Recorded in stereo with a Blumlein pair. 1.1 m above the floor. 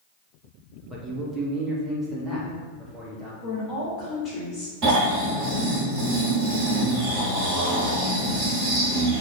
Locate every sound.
0.9 s a man speaking: 5° right, 1.2 m; by 3.3 s 10° right, 3 m
3.4 s a woman speaking: 15° left, 2.5 m
4.8 s snoring: 40° right, 2.5 m